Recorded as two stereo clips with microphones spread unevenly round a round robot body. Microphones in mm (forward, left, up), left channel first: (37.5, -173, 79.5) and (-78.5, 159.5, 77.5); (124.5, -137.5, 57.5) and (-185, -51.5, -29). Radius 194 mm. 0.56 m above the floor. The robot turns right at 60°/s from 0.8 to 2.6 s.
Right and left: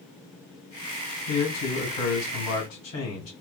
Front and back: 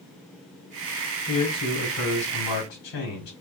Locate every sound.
1.3 s a man speaking: 115° right, 2 m; by 3.3 s 35° right, 2 m